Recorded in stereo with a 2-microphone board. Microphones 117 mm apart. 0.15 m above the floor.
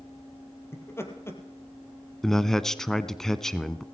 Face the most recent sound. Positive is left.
turn(degrees=5)  # may be behind; listen again after turning